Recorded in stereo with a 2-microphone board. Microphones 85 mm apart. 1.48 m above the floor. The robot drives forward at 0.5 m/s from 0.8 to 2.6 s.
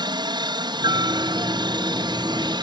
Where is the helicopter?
60° right (ahead or behind).